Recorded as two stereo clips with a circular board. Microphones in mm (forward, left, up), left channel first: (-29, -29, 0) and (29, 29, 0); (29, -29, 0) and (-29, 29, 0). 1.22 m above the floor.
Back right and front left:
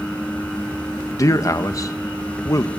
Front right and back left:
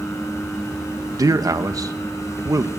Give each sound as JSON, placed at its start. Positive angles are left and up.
{"t": 1.2, "sound": "a man speaking", "azimuth_deg": 180, "distance_m": 1.2}